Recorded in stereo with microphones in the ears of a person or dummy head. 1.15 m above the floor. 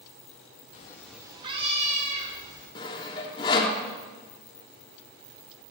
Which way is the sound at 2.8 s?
20° left (ahead or behind).